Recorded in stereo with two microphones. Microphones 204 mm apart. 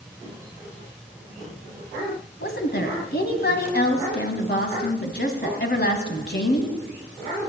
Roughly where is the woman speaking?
Left.